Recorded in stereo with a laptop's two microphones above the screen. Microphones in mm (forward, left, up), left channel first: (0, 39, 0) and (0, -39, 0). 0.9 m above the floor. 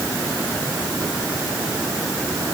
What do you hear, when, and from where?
Only background noise.